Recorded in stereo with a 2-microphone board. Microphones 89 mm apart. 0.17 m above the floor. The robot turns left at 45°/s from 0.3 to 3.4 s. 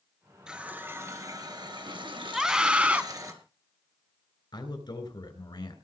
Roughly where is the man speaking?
Left.